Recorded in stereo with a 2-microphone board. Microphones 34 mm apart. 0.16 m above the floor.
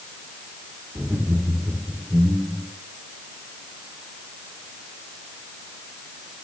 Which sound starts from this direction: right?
Laughter, at 0.9 s.